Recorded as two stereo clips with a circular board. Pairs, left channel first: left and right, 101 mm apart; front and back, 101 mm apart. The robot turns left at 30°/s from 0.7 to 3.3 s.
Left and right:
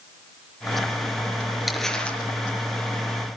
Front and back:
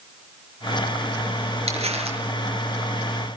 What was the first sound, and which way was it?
Crumpling, straight behind.